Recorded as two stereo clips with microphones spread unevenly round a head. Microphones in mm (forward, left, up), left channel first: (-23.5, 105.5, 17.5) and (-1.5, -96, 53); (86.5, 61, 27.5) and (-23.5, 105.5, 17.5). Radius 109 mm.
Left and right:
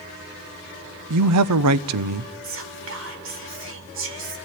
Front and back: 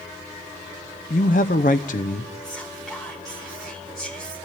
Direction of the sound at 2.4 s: 110° right.